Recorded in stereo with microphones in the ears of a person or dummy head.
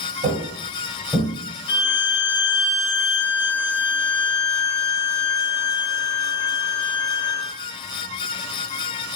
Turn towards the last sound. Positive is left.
turn(degrees=35)  # may be behind; listen again after turning